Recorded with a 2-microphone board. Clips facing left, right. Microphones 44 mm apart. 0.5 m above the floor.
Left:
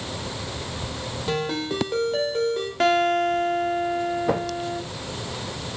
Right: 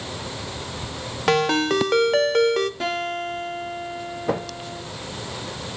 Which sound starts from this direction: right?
A ringtone, at 1.3 s.